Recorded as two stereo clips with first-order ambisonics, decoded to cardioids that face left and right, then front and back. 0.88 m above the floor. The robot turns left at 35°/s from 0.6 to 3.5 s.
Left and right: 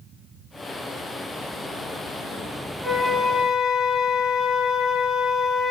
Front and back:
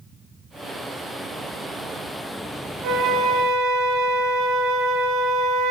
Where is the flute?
175° left, 1.2 m; by 5.7 s 150° left, 1.2 m.